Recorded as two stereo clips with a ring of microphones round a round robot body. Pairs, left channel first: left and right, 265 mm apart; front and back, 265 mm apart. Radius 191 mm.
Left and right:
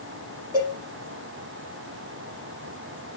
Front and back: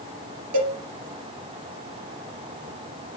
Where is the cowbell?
170° right, 4 m.